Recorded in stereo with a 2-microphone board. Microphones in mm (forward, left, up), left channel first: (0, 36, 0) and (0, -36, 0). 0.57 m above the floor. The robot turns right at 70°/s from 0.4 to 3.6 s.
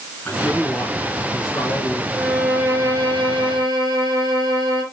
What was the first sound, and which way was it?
A man speaking, 20° left.